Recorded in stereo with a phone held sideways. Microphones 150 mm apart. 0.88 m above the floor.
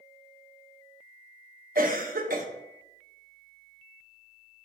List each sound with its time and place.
1.8 s a cough: 75° right (ahead or behind), 0.9 m